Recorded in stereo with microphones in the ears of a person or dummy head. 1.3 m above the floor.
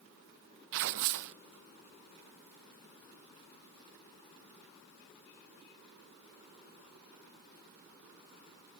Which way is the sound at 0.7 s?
65° right (ahead or behind).